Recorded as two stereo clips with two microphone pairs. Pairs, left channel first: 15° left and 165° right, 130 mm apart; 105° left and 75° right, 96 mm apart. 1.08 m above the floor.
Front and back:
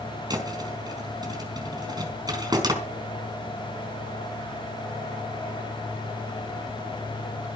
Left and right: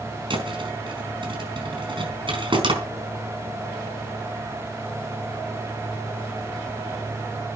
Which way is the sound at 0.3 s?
105° right.